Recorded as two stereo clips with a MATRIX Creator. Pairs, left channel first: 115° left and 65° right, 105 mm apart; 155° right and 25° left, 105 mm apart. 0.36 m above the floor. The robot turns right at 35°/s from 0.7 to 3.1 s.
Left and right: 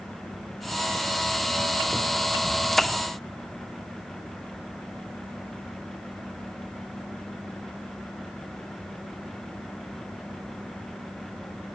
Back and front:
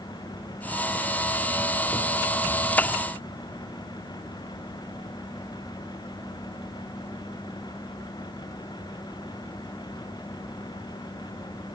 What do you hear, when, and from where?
Only background noise.